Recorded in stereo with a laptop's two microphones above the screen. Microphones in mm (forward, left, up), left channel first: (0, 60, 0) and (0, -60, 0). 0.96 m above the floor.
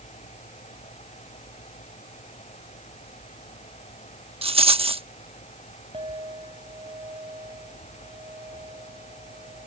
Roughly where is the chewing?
I don't hear chewing.